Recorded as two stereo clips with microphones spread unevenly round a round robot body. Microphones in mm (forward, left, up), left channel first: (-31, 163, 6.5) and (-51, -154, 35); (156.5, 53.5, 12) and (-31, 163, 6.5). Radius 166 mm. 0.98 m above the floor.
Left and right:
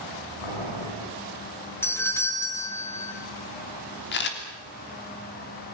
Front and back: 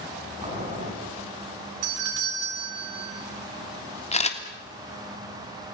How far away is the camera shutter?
About 3 m.